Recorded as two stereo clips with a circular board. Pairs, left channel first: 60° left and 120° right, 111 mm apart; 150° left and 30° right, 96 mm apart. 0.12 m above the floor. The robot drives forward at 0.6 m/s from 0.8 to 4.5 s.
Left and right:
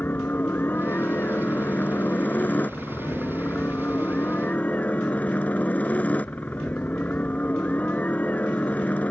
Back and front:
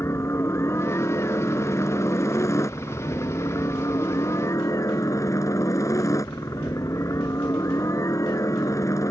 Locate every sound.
0.0 s a helicopter: 120° left; by 9.1 s 130° left